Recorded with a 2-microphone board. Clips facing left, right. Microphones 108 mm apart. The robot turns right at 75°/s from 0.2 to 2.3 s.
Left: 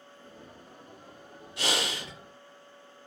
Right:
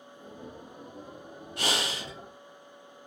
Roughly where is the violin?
No violin in this recording.